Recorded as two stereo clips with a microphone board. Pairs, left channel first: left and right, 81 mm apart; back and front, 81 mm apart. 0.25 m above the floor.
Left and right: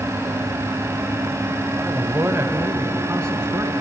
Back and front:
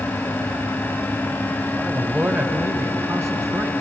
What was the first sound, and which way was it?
A man speaking, 55° right.